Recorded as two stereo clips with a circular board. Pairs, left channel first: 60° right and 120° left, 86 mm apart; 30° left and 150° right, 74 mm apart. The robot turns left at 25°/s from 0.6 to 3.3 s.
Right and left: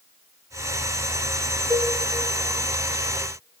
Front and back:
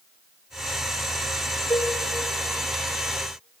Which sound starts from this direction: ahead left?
Dishes clattering, at 1.7 s.